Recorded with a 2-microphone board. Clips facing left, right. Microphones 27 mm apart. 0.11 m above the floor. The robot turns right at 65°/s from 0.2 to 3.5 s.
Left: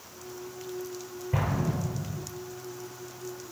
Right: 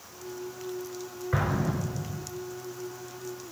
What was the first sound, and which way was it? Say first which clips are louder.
An explosion: right 1 dB; 65° right (ahead or behind).